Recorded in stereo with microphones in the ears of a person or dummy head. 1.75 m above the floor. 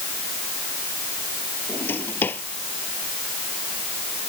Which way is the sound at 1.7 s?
10° left (ahead or behind).